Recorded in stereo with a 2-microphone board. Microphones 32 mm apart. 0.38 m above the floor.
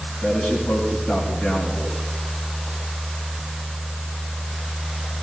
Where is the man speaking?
55° left (ahead or behind), 3.5 m.